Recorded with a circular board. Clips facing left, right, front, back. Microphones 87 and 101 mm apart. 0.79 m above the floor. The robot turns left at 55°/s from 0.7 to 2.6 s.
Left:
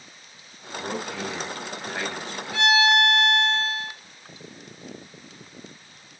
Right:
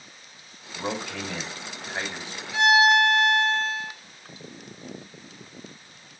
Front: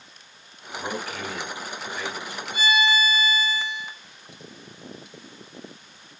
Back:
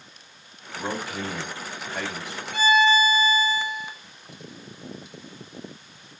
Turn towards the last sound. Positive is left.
turn(degrees=-170)